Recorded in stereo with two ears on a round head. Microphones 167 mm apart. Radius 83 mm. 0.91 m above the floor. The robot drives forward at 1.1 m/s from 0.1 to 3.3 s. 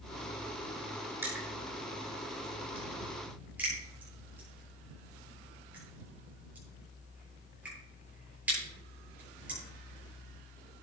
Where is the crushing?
15° right (ahead or behind), 6.5 m; by 9.6 s 10° right (ahead or behind), 9 m.